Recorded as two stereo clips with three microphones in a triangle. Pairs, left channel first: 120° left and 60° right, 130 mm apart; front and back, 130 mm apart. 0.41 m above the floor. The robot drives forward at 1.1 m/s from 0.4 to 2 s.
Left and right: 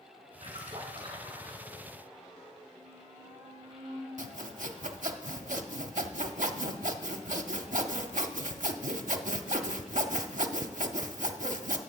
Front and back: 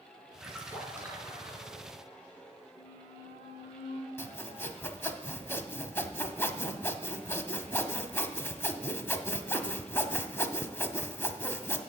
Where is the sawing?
70° right, 0.6 m.